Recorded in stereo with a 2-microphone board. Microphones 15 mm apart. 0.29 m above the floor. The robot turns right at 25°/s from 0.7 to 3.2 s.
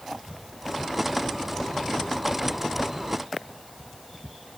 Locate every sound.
Only background noise.